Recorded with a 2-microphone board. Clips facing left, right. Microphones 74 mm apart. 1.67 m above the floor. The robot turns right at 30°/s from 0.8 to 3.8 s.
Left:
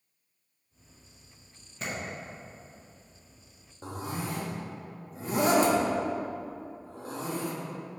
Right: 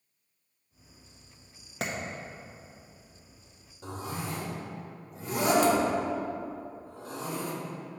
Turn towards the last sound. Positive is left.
turn(degrees=30)  # may be behind; listen again after turning